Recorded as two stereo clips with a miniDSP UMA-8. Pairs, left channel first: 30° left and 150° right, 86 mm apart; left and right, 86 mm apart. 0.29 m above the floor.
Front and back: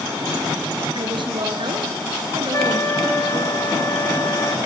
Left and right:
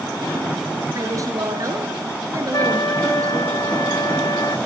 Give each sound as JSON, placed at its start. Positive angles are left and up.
{"t": 0.9, "sound": "a woman speaking", "azimuth_deg": -135, "distance_m": 4.5}
{"t": 2.5, "sound": "a trumpet", "azimuth_deg": 70, "distance_m": 1.2}